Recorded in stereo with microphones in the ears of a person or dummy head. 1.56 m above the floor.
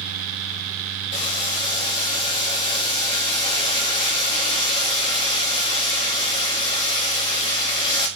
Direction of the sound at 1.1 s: 30° left (ahead or behind).